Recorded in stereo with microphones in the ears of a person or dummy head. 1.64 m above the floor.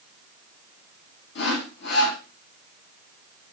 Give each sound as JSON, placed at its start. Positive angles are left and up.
{"t": 1.4, "sound": "sawing", "side_deg": 60, "distance_m": 1.0}